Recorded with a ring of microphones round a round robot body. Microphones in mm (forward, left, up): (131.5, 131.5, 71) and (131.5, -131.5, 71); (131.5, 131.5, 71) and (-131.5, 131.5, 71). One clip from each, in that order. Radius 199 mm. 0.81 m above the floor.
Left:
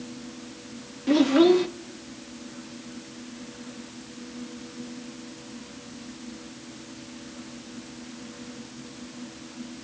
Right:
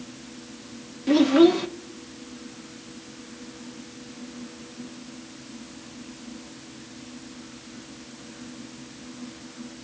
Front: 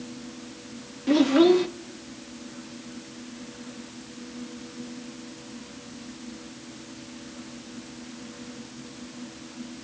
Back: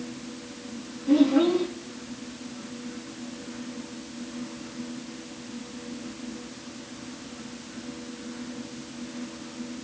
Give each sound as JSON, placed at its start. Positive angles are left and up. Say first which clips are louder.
{"t": 1.1, "sound": "a child speaking", "louder": "right 1 dB, front 2 dB", "azimuth_deg": -5, "distance_m": 0.9}